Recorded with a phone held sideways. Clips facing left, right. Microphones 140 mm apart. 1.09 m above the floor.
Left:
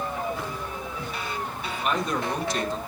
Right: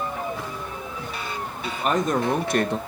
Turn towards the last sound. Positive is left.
turn(degrees=-70)  # may be behind; listen again after turning